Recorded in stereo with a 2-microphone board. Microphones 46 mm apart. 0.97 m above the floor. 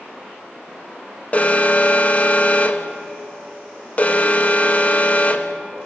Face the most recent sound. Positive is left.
turn(degrees=35)  # may be behind; listen again after turning